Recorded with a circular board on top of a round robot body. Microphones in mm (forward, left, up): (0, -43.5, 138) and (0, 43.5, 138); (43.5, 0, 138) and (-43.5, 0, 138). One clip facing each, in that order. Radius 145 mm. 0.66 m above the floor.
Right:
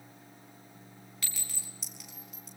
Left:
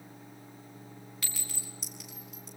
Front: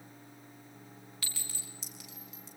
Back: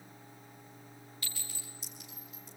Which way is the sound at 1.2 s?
Straight ahead.